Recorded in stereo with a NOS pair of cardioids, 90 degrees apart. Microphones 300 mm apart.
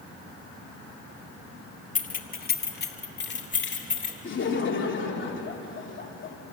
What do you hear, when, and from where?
1.9 s keys jangling: 25° left, 1.3 m; by 4.1 s 40° left, 2.5 m
4.2 s laughter: 40° left, 3 m